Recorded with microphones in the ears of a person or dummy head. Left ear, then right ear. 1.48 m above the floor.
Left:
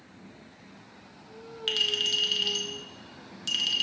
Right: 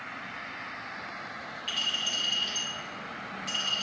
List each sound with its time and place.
1.7 s a clink: 30° left (ahead or behind), 0.6 m